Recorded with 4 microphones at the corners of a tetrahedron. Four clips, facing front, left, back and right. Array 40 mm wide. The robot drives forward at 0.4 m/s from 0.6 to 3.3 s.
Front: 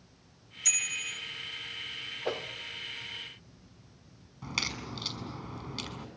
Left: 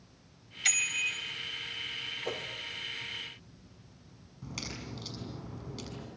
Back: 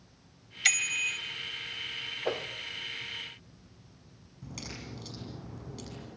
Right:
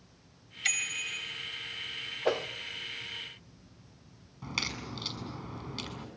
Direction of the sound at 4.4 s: 45° right.